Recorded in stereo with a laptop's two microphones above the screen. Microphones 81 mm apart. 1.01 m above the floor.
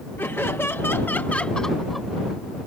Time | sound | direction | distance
0.2 | laughter | 25° left (ahead or behind) | ?